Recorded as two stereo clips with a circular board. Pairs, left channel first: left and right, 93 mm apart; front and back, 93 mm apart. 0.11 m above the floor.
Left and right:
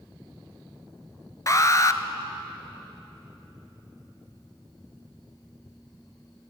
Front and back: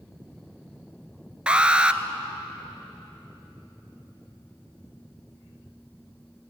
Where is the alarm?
110° left, 1.0 m.